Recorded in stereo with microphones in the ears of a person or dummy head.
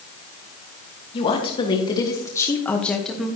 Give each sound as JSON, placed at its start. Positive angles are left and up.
{"t": 1.1, "sound": "a woman speaking", "side_deg": 30, "distance_m": 2.5}